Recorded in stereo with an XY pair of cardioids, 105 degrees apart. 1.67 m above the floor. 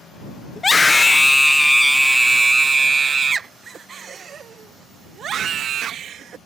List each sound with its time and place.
0.6 s a scream: 25° left; by 6.4 s 65° right